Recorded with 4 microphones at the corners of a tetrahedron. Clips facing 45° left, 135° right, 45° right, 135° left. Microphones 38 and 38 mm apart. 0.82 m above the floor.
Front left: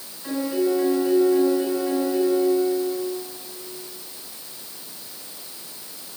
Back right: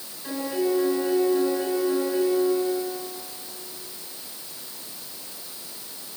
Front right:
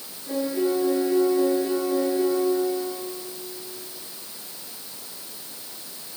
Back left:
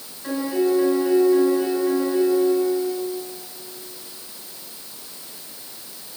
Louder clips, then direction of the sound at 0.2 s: Front left 3 dB, back left 3 dB; 135° left.